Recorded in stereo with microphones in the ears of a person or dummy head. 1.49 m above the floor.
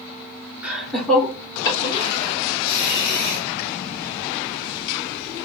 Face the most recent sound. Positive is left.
turn(degrees=45)  # may be behind; listen again after turning